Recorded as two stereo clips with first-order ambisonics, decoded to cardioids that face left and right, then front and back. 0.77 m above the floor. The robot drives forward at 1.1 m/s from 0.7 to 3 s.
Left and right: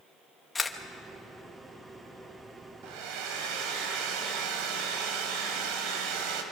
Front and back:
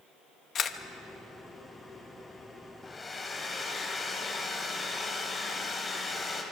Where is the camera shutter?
25° left, 1.0 m; by 0.8 s 30° left, 1.0 m.